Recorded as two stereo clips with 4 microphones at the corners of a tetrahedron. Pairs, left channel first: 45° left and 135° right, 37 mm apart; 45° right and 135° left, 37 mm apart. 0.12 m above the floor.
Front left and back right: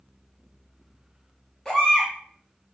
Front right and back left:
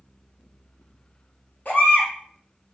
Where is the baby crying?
30° right, 1.3 m.